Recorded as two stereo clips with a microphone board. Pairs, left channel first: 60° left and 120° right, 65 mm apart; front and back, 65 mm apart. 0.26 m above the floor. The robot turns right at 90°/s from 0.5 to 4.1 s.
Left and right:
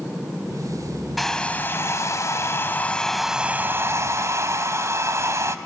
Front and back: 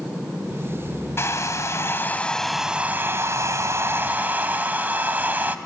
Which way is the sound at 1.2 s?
30° right.